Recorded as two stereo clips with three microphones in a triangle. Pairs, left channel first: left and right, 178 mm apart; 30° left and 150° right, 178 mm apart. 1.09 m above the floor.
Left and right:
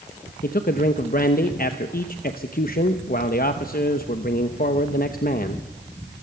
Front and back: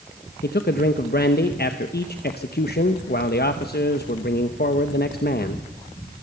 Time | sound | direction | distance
0.4 | a man speaking | 55° left | 0.8 m